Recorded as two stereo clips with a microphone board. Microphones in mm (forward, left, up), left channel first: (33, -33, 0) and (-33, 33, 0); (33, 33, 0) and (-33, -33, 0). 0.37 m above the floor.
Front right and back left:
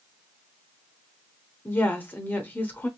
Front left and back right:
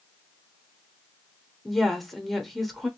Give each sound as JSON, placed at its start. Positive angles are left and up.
{"t": 1.6, "sound": "a woman speaking", "azimuth_deg": -40, "distance_m": 0.8}